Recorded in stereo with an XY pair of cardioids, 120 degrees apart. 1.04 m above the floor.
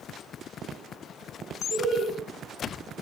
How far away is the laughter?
About 1.1 m.